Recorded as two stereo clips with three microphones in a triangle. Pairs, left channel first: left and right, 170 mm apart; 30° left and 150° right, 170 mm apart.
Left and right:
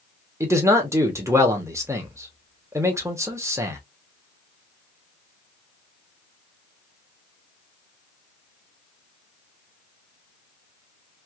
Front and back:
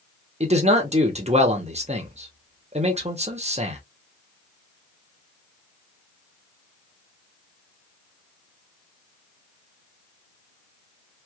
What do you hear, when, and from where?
0.4 s a man speaking: 155° right, 1.1 m